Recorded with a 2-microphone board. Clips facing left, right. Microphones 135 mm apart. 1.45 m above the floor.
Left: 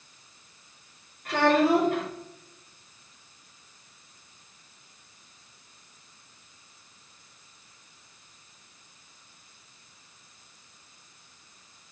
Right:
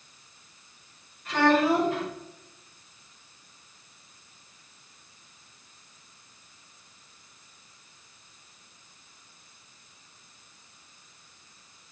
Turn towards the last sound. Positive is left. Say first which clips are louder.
# even
turn(degrees=60)  # may be behind; listen again after turning